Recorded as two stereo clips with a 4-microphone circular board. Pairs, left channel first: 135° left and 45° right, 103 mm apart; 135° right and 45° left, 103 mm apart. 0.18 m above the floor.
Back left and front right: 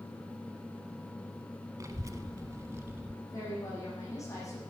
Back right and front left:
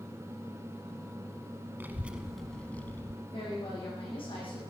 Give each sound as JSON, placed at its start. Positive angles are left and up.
{"t": 1.8, "sound": "a child speaking", "azimuth_deg": -15, "distance_m": 0.9}
{"t": 3.3, "sound": "a woman speaking", "azimuth_deg": -165, "distance_m": 8.0}